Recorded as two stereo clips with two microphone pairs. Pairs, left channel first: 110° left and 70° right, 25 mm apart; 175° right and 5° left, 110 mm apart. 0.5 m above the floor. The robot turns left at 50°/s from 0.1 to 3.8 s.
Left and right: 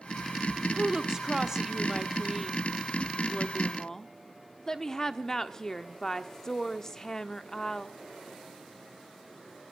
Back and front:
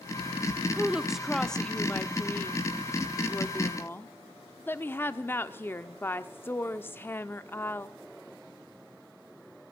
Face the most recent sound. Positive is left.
turn(degrees=150)